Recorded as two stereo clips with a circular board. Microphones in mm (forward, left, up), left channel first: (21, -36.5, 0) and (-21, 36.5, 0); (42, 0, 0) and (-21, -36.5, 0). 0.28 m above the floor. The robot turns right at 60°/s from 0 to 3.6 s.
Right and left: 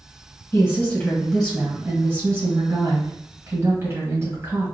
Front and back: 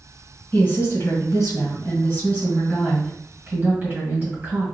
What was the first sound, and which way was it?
A woman speaking, 25° right.